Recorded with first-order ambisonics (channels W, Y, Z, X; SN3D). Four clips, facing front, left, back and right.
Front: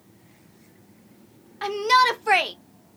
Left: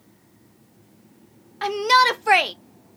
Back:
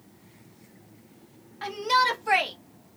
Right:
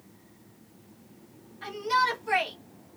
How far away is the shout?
About 0.7 m.